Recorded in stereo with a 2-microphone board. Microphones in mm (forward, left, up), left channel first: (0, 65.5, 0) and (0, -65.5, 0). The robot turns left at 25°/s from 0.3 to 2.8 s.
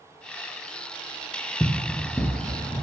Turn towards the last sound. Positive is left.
turn(degrees=35)  # may be behind; listen again after turning